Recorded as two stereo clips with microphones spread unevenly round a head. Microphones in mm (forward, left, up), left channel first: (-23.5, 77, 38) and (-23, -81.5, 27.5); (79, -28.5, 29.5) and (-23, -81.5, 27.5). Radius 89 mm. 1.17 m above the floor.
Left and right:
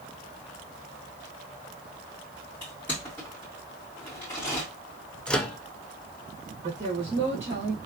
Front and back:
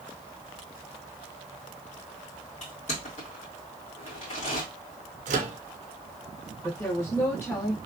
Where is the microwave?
175° left, 0.6 m.